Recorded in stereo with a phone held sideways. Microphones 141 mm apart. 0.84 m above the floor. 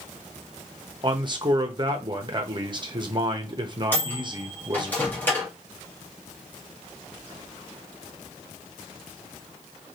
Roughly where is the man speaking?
Right.